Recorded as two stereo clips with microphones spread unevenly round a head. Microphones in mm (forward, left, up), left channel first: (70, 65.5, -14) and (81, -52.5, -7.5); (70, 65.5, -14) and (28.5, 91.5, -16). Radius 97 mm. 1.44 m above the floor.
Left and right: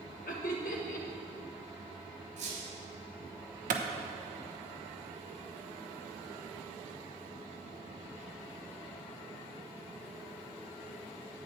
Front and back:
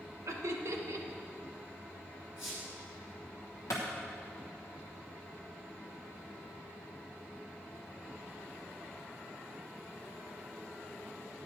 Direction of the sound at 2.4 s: 95° right.